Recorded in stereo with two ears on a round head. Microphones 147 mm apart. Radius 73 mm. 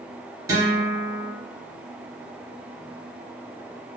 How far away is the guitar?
About 1.6 m.